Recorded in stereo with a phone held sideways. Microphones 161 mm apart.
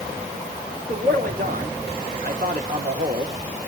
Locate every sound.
0.9 s a man speaking: 65° right (ahead or behind), 4 m